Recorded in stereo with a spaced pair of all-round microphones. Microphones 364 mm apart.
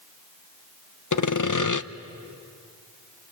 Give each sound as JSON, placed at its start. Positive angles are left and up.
{"t": 1.1, "sound": "sawing", "side_deg": 55, "distance_m": 0.6}